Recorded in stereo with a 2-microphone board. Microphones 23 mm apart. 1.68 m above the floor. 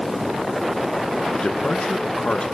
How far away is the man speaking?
About 1.7 m.